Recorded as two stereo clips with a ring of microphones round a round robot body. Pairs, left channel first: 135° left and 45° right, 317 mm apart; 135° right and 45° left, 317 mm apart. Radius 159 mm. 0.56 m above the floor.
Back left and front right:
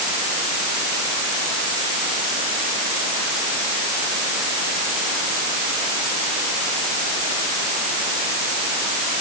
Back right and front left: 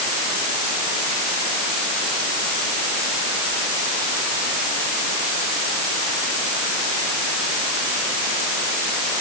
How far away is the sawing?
I don't hear sawing.